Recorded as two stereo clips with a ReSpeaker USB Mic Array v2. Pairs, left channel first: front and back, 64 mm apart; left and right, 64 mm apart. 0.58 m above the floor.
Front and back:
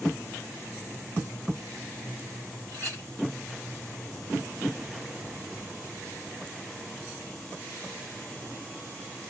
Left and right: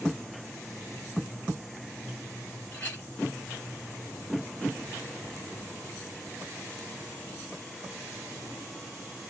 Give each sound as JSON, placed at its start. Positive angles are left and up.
{"t": 2.7, "sound": "a clink", "azimuth_deg": 155, "distance_m": 3.5}